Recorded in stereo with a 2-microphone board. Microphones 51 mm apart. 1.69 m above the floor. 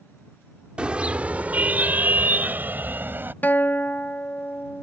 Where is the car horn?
20° right (ahead or behind); by 3.3 s 40° right (ahead or behind).